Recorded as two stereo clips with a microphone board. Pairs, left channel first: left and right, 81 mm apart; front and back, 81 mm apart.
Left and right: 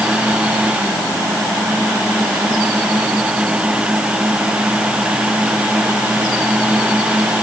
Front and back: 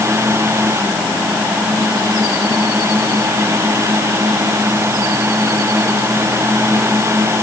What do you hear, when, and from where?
Only background noise.